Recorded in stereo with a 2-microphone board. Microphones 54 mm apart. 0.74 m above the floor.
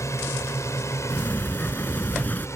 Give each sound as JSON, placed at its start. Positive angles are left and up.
{"t": 0.0, "sound": "a drone", "side_deg": 65}
{"t": 1.1, "sound": "a sliding door", "side_deg": 30}